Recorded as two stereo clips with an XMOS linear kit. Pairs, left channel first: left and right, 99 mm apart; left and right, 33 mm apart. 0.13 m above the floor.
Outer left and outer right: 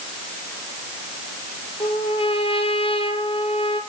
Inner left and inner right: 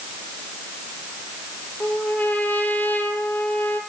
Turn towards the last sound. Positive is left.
turn(degrees=65)  # may be behind; listen again after turning